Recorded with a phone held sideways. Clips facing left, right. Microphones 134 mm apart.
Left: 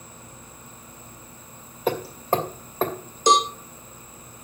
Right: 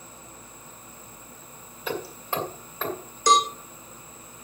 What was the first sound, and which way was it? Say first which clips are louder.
Hammering: left 7 dB; 45° left (ahead or behind).